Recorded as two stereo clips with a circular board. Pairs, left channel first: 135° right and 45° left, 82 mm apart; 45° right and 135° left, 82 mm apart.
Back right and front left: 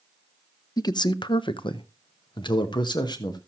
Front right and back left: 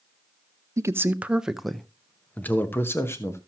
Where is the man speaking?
175° right, 0.7 m; by 3.4 s 105° right, 1.4 m.